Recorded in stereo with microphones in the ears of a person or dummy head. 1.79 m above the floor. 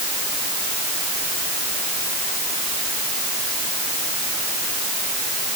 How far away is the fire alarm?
No fire alarm in this recording.